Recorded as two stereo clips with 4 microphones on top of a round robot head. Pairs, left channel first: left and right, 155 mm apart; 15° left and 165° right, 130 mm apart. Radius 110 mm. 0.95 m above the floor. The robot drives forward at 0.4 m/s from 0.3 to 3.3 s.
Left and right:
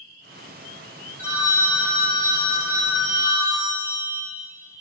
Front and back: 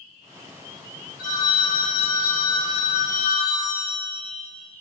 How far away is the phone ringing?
About 2.5 m.